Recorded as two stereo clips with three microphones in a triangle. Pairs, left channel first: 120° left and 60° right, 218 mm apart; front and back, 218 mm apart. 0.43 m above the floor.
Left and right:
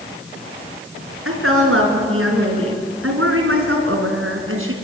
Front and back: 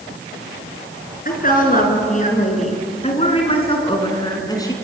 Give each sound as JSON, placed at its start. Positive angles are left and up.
{"t": 1.2, "sound": "a woman speaking", "azimuth_deg": -50, "distance_m": 5.0}